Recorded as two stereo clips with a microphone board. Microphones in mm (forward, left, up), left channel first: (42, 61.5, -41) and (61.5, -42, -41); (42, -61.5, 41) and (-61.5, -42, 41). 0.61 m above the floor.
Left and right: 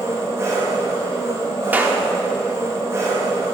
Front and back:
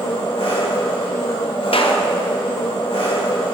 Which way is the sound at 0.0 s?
20° right.